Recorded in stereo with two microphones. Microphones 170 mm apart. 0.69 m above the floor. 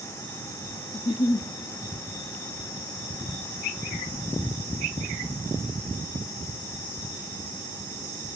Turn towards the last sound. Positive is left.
turn(degrees=40)  # may be behind; listen again after turning